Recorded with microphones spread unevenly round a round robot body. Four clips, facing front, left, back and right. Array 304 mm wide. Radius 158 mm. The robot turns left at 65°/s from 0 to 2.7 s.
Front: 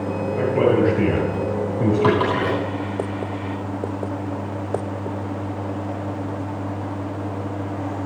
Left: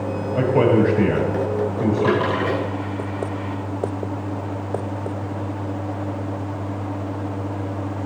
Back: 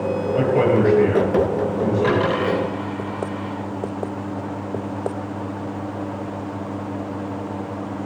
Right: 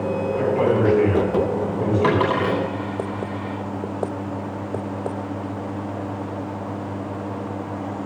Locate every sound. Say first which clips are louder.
0.3 s a man speaking: left 4 dB, even; 115° left, 8 m; by 2.5 s 25° right, 8 m
2.0 s a dropped coin: right 1 dB, even; 60° right, 10 m; by 3.5 s 105° right, 10 m